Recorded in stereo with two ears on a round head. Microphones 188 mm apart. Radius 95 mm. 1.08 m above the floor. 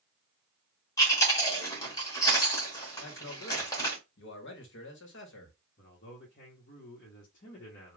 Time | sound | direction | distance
1.0 | chewing | 15° left (ahead or behind) | 1.3 m
3.0 | a man speaking | 60° left (ahead or behind) | 1.1 m
5.8 | a man speaking | 45° left (ahead or behind) | 1.0 m